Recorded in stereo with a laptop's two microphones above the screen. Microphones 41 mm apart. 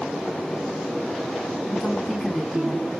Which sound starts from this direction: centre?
A woman speaking, at 1.7 s.